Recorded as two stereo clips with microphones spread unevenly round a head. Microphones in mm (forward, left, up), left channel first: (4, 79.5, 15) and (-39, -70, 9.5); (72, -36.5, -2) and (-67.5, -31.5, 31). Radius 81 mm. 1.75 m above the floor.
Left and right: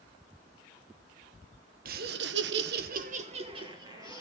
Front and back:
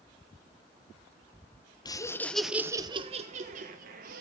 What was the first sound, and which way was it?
Laughter, 70° right.